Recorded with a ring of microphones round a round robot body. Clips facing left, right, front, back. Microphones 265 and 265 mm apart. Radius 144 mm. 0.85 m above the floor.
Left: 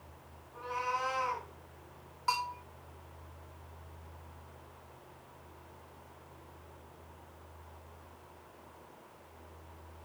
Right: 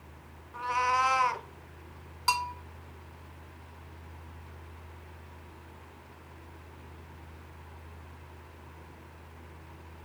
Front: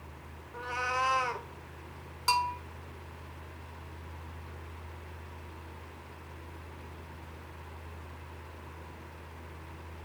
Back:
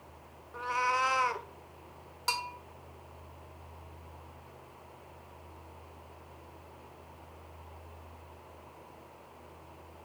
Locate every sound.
0.5 s a cat meowing: 95° right, 0.8 m
2.3 s a bell: 85° right, 1.0 m